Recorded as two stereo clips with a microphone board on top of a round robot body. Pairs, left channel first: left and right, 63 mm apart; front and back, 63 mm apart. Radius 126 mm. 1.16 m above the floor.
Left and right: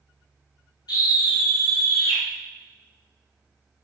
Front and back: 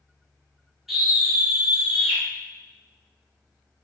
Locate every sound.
0.9 s a scream: 95° left, 2.5 m; by 2.2 s 105° left, 2 m